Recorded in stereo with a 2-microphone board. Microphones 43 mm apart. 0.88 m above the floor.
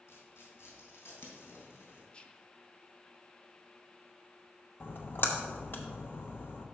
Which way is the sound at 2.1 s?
25° left (ahead or behind).